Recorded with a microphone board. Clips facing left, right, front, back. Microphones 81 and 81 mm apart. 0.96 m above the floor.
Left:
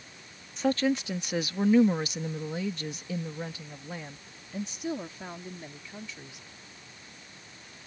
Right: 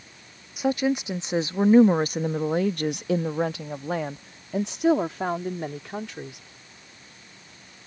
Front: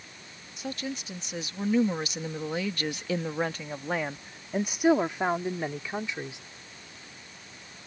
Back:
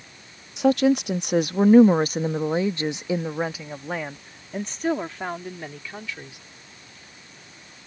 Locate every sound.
0.6 s a woman speaking: 170° right; by 6.4 s 65° right